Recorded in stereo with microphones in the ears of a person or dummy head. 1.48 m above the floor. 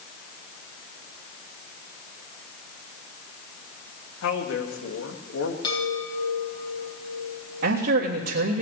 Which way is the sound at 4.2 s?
75° left (ahead or behind).